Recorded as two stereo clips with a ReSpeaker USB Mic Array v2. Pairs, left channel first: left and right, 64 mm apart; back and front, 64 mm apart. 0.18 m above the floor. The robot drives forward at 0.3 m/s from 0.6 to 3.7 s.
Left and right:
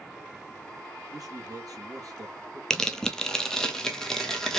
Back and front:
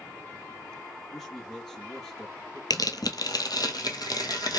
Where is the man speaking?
90° right, 2.5 m; by 2.6 s 100° right, 2.5 m.